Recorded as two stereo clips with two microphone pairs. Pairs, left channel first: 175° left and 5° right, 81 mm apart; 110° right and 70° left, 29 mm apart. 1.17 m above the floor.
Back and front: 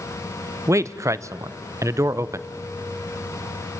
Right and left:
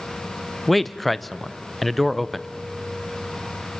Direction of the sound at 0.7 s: 30° right.